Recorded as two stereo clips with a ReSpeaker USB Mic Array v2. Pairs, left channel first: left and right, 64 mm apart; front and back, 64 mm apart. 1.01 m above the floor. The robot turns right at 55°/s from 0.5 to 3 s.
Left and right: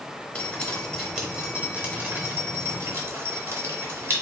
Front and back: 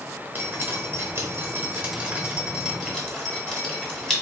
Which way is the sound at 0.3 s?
150° left.